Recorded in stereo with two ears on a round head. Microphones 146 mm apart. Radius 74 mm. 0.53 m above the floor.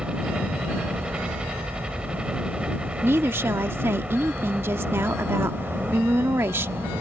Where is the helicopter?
5° right (ahead or behind).